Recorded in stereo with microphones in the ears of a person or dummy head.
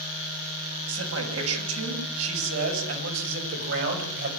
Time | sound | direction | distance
0.9 | a man speaking | 85° right | 7.5 m